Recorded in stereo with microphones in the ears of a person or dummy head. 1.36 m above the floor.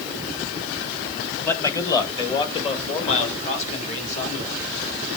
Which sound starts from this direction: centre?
A man speaking, at 1.4 s.